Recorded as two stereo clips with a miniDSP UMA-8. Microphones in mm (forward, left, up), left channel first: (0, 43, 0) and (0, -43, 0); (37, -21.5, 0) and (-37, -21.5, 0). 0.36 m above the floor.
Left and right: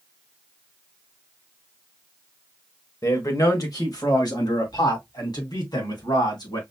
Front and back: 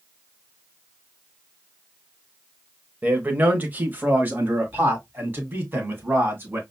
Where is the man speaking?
120° left, 1.2 m.